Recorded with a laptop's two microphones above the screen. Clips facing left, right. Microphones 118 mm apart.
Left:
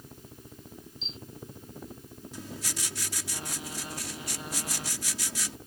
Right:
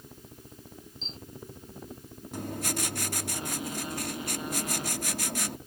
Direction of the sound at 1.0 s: 40° right (ahead or behind).